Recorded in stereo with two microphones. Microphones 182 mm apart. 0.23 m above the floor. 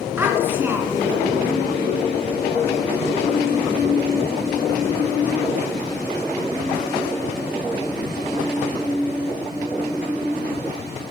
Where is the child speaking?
10° right (ahead or behind), 2 m.